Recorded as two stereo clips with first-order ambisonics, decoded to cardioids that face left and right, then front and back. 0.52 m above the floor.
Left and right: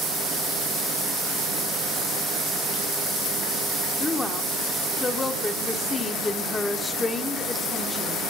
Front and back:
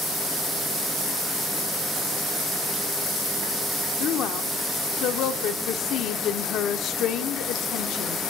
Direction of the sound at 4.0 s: 20° left.